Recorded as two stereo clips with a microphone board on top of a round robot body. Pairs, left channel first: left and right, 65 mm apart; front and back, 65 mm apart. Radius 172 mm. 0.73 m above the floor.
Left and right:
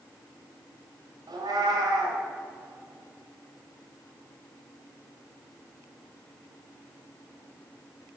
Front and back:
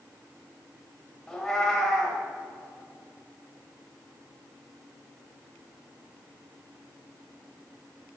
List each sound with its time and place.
1.3 s a cat meowing: 80° right, 1.5 m